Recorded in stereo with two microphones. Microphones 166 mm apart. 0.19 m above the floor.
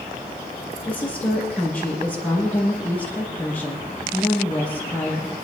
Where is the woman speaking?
10° left (ahead or behind), 6 m.